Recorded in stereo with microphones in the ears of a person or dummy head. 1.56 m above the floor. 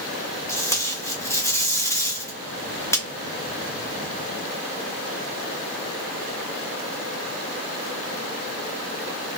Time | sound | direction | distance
0.5 | tape being pulled | 10° left (ahead or behind) | 0.6 m